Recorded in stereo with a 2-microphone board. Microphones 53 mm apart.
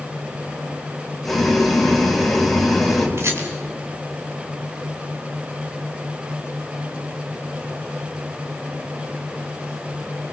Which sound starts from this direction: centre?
Boiling, at 1.2 s.